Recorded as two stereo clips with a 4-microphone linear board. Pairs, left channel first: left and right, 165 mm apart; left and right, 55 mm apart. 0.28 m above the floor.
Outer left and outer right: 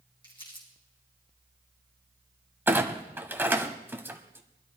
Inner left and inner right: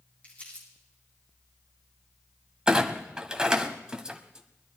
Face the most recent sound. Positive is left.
turn(degrees=-15)  # may be behind; listen again after turning